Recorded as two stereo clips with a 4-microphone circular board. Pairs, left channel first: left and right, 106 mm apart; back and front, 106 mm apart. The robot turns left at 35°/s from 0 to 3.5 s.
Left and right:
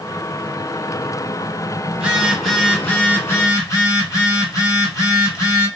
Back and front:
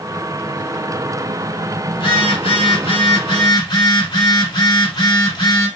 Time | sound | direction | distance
1.9 | a phone buzzing | 165° right | 1.2 m